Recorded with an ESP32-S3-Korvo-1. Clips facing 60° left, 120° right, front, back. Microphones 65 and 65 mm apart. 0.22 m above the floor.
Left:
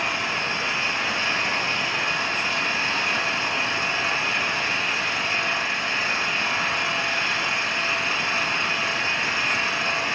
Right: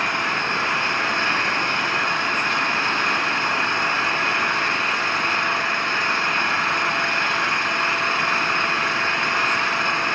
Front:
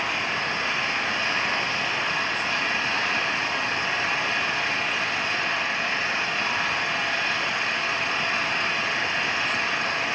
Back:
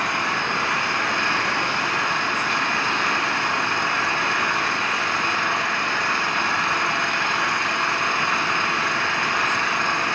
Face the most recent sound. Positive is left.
turn(degrees=-150)